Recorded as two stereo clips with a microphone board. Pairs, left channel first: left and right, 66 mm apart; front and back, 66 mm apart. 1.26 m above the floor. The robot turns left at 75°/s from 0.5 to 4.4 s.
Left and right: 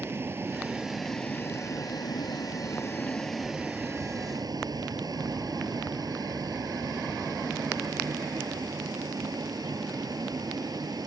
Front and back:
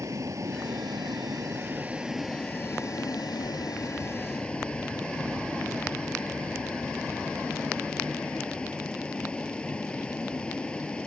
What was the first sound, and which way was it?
A vehicle, 140° right.